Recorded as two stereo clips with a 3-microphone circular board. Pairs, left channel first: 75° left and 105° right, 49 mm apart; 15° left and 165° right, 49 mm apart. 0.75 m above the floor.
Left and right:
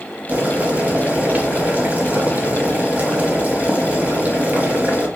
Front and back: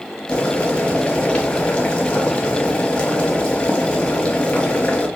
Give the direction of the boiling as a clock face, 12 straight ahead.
2 o'clock.